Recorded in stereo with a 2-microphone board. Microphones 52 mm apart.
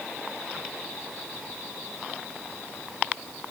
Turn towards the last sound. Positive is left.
No sound to turn to.